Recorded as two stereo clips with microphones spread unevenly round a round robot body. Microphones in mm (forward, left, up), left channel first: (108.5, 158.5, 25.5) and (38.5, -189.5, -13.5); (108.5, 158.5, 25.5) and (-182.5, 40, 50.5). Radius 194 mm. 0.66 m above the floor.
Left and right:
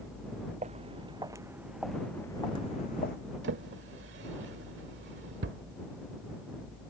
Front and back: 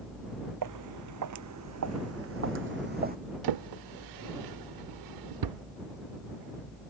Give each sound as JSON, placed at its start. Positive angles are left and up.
{"t": 0.6, "sound": "footsteps", "azimuth_deg": -175}
{"t": 3.4, "sound": "a drawer", "azimuth_deg": -165}